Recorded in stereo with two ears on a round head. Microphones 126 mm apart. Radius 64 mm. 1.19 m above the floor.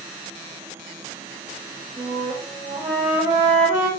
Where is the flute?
15° right (ahead or behind), 4 m.